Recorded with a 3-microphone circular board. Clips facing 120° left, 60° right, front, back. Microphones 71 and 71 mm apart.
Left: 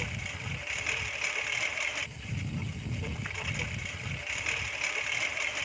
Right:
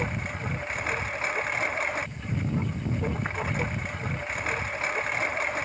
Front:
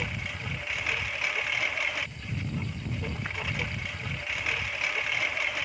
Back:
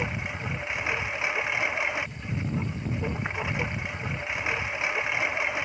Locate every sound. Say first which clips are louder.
0.0 s a lawn mower: right 7 dB, back 4 dB; 110° right